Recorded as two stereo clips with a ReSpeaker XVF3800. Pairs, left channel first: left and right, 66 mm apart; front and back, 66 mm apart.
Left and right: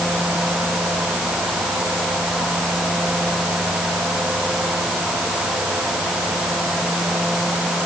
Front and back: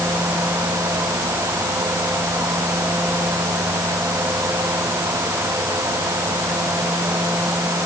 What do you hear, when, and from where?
Only background noise.